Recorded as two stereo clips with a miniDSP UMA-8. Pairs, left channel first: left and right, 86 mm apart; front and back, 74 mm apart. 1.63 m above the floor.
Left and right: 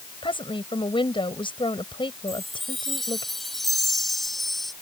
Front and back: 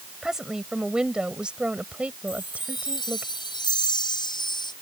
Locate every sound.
0.2 s a woman speaking: 95° left; by 3.3 s 115° left
2.3 s a chime: straight ahead